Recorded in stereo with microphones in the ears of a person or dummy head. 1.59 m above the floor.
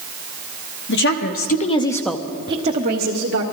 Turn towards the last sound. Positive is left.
turn(degrees=-55)  # may be behind; listen again after turning